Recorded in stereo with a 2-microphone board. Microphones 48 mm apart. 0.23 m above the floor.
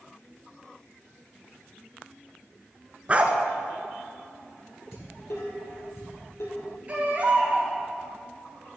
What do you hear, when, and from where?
3.1 s a dog barking: 25° right (ahead or behind), 0.8 m
4.9 s dishes clattering: 70° left (ahead or behind), 4 m
6.9 s a baby crying: 30° right (ahead or behind), 2.5 m